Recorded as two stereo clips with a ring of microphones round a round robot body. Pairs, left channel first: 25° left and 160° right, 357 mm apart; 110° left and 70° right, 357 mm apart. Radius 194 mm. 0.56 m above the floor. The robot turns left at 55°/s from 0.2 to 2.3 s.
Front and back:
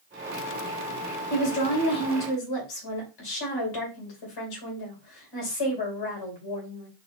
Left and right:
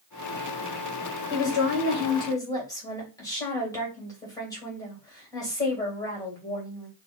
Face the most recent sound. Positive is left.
turn(degrees=30)